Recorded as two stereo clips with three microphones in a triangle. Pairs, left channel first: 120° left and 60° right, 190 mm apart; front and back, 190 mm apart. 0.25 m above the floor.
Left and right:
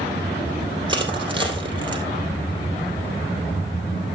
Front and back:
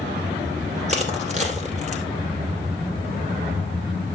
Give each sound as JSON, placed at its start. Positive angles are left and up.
{"t": 0.9, "sound": "crushing", "azimuth_deg": -125, "distance_m": 2.5}